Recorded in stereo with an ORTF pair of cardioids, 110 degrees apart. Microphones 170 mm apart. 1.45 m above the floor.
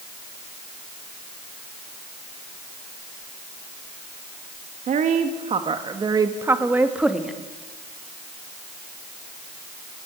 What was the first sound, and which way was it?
A woman speaking, 50° right.